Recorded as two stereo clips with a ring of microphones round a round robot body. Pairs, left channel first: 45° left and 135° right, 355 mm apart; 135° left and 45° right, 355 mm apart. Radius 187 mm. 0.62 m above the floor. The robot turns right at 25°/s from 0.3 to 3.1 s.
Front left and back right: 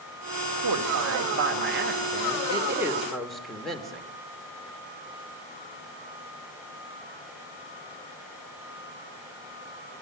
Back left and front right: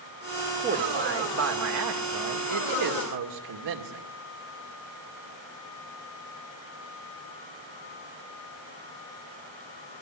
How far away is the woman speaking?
About 2.5 m.